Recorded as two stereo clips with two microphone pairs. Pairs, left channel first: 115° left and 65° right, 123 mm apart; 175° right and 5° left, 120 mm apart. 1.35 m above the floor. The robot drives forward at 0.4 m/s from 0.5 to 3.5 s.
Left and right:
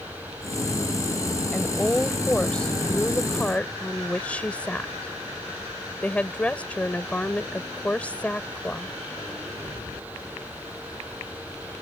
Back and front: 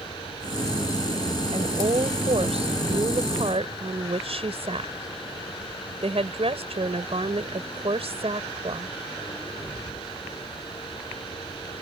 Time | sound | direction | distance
1.5 | a woman speaking | 30° left | ?